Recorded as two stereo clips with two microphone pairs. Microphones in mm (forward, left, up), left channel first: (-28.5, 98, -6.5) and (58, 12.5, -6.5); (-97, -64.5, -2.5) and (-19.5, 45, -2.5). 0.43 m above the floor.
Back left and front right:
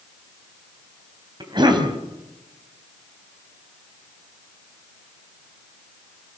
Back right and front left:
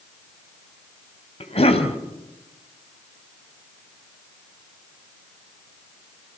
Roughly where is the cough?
Right.